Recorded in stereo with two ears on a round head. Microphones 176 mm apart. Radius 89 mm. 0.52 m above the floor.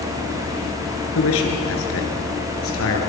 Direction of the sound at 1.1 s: 75° left (ahead or behind).